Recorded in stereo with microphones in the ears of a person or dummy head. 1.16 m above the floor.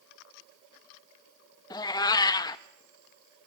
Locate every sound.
1.7 s a cat meowing: 25° left (ahead or behind), 0.6 m